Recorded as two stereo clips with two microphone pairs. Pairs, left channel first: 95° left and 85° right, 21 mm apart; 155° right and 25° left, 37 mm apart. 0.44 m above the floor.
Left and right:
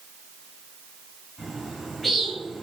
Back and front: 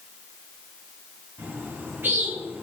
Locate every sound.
1.4 s a bird: straight ahead, 4 m